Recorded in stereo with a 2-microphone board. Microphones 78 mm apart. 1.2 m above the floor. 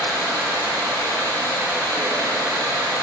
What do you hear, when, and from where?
0.0 s running water: 55° right (ahead or behind), 4 m